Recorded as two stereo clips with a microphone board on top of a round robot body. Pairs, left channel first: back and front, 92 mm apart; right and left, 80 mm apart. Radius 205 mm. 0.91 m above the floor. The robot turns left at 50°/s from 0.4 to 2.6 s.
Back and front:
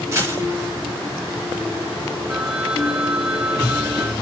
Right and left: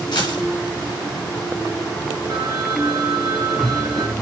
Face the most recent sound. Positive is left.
turn(degrees=75)